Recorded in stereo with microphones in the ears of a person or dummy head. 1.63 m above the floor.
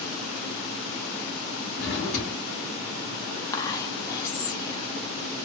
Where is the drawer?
50° left (ahead or behind), 2 m.